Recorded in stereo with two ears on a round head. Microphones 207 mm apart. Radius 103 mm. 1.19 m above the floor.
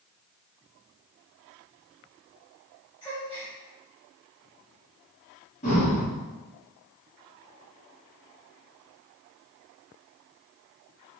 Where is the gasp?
20° left (ahead or behind), 1.9 m.